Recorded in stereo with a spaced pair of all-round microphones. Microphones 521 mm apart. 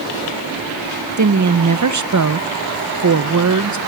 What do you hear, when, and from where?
1.2 s a woman speaking: 35° right (ahead or behind), 0.6 m